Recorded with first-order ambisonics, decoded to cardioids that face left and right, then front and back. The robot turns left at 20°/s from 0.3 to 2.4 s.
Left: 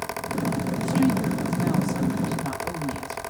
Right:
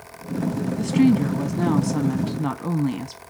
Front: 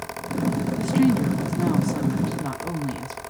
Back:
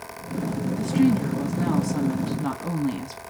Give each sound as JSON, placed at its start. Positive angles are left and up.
{"t": 0.8, "sound": "a woman speaking", "azimuth_deg": -70, "distance_m": 1.0}